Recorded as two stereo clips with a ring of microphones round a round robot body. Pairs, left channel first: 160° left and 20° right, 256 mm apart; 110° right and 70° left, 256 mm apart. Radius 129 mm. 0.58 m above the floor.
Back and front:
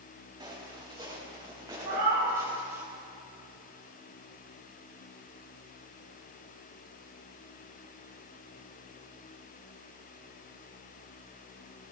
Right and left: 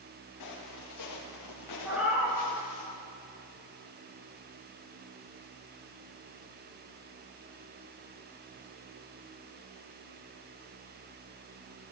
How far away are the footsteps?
About 6 m.